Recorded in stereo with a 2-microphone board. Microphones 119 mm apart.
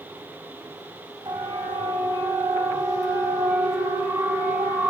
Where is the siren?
35° right (ahead or behind), 5.5 m; by 4.9 s 25° right (ahead or behind), 7.5 m.